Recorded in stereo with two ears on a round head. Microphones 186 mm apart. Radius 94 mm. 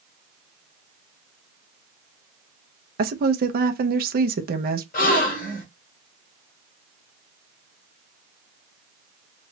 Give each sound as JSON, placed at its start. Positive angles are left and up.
{"t": 3.0, "sound": "a woman speaking", "side_deg": -50, "distance_m": 0.7}
{"t": 4.9, "sound": "a gasp", "side_deg": 45, "distance_m": 1.2}